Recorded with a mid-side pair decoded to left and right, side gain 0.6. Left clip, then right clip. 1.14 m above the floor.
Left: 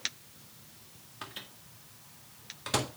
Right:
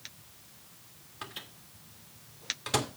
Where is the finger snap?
I don't hear a finger snap.